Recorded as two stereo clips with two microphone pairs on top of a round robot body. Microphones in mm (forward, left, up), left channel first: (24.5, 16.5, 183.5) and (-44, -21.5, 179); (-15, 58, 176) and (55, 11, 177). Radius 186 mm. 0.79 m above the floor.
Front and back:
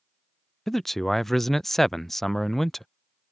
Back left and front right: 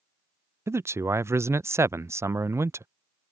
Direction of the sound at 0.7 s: 60° right.